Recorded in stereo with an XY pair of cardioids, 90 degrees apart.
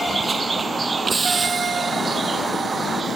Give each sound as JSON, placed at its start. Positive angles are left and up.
{"t": 0.0, "sound": "a vehicle", "azimuth_deg": -30}